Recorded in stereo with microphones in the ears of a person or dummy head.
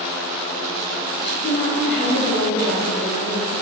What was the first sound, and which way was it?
A woman speaking, 35° left (ahead or behind).